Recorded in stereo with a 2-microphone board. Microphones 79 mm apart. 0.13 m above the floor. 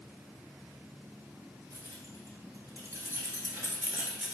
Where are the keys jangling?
65° right (ahead or behind), 1.8 m; by 4.3 s 10° right (ahead or behind), 1.2 m.